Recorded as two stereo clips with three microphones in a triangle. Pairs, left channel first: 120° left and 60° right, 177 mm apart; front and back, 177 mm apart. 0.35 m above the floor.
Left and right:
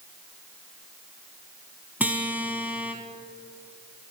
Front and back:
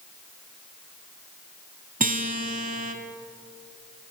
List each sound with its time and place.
2.0 s a guitar: 140° right, 0.9 m